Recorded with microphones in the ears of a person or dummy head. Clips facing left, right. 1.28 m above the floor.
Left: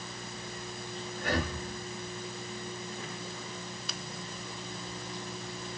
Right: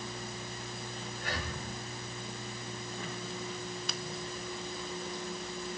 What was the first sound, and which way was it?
Breathing, 55° left (ahead or behind).